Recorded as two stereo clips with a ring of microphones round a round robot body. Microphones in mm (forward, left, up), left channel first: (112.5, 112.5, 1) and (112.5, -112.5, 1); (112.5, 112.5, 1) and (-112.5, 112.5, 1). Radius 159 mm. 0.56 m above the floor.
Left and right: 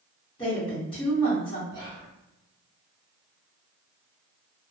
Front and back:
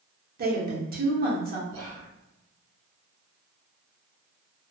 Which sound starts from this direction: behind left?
A woman speaking, at 0.4 s.